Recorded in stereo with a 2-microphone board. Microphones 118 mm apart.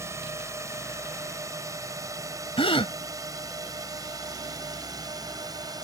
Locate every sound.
0.0 s a drone: 25° right (ahead or behind); by 5.8 s 35° right (ahead or behind)
2.6 s a gasp: 55° left (ahead or behind)